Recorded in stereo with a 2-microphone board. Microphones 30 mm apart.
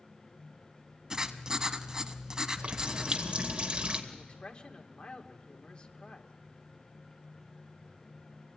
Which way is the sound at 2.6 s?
35° right (ahead or behind).